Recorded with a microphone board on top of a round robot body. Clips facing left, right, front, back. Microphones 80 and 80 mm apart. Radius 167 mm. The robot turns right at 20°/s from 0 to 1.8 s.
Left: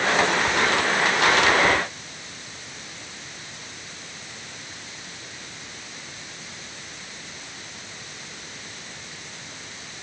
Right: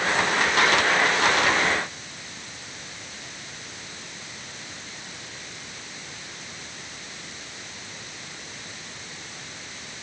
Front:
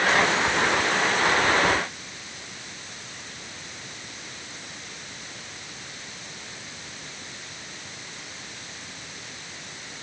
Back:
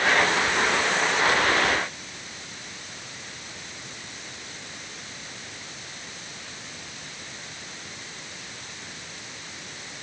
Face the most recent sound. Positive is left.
No sound to turn to.